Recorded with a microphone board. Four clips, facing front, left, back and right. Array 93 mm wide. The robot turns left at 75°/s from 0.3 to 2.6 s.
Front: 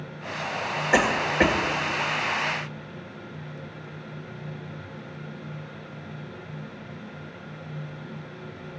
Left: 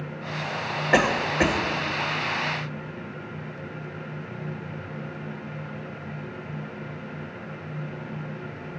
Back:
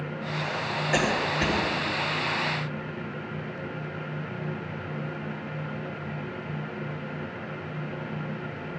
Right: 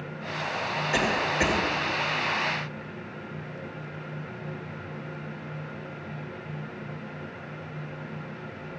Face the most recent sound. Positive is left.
turn(degrees=-60)